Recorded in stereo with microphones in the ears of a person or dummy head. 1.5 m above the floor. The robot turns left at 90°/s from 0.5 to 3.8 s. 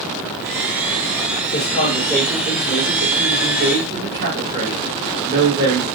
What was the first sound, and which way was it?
A man speaking, 65° left.